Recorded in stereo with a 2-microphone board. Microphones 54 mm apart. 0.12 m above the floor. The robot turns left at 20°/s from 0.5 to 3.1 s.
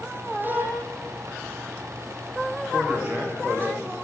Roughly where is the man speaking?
Right.